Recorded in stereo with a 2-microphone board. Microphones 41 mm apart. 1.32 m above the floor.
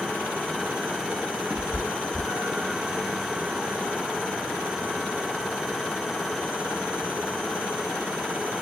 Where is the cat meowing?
50° right (ahead or behind), 1.6 m; by 2.8 s 20° right (ahead or behind), 2.5 m.